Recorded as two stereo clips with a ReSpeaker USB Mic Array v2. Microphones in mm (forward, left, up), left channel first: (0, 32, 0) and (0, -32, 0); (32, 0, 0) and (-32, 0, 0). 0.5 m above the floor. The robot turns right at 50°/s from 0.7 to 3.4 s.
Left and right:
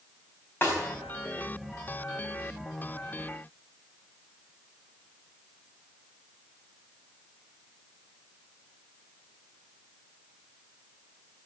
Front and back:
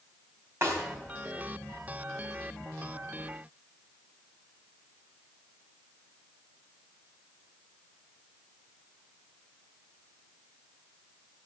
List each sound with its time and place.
0.6 s a snare drum: 140° left, 4 m; by 0.8 s 145° left, 4 m